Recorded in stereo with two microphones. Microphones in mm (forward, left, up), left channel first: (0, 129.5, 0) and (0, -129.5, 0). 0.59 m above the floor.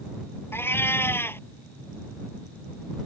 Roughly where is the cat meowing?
Centre.